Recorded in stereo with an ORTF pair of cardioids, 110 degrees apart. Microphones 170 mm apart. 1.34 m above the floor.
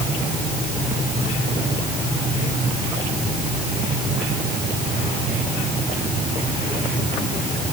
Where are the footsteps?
No footsteps in this recording.